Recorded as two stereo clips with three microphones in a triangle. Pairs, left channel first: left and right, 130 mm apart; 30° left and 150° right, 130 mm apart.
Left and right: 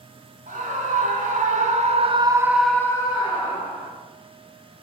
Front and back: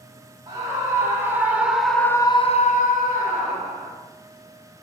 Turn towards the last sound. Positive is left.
turn(degrees=55)